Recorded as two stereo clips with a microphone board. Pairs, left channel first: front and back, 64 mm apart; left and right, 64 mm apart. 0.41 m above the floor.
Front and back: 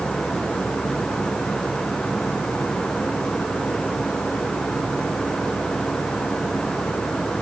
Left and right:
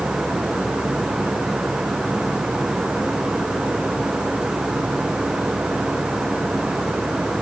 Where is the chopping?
No chopping in this recording.